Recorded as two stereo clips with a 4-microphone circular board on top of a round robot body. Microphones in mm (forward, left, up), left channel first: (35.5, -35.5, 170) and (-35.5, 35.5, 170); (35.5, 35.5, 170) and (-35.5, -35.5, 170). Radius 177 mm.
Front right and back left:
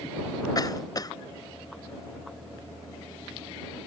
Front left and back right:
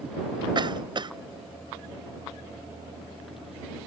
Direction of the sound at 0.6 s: 95° right.